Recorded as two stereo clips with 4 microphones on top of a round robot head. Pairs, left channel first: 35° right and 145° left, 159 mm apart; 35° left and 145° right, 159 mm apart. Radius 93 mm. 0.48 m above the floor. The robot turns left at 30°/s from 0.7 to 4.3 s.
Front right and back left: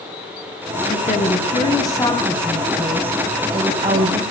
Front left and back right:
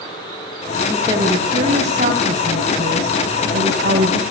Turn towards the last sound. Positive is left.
turn(degrees=-175)